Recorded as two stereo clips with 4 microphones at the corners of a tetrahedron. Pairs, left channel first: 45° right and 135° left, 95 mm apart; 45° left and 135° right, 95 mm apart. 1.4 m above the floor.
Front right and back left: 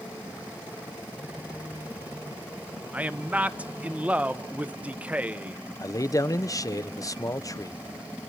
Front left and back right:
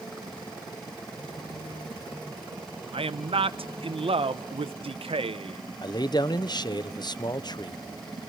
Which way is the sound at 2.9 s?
150° right.